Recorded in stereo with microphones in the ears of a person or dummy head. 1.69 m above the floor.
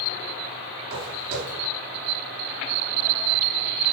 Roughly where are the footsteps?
Right.